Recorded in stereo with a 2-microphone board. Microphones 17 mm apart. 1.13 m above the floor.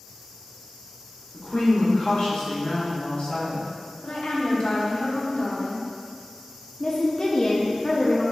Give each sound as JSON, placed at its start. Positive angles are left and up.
{"t": 1.3, "sound": "a woman speaking", "side_deg": 65, "distance_m": 1.5}
{"t": 4.0, "sound": "a woman speaking", "side_deg": 75, "distance_m": 1.0}
{"t": 6.8, "sound": "a woman speaking", "side_deg": 40, "distance_m": 0.6}